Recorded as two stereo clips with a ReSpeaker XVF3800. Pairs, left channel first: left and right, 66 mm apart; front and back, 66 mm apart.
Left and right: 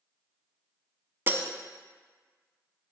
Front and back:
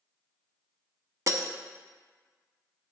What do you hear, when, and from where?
1.3 s breaking glass: 140° right, 0.6 m